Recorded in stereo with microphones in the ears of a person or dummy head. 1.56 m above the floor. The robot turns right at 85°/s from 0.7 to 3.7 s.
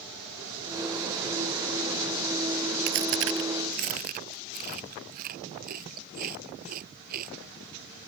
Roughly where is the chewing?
Right.